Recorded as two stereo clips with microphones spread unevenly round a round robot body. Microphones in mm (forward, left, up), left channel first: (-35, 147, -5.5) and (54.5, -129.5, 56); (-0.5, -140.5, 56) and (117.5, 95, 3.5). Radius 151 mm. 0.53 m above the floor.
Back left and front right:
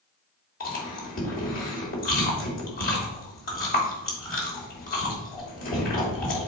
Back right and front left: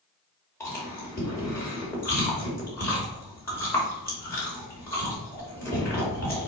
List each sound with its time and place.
0.6 s chewing: 155° left, 2.5 m